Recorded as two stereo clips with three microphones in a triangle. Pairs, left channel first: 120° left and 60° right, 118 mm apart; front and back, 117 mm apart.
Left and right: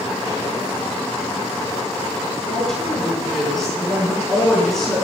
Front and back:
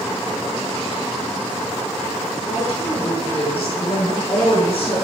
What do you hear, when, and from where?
2.4 s a woman speaking: 35° left, 5 m